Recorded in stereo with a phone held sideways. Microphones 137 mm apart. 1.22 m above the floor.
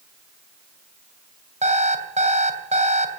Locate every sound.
1.6 s an alarm clock: 60° right (ahead or behind), 2.5 m